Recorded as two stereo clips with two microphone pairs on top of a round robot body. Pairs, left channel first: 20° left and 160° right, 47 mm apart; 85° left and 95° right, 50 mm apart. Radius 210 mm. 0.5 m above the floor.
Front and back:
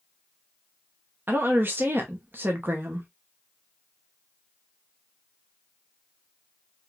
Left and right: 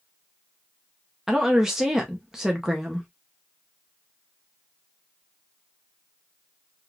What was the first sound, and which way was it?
A woman speaking, 165° right.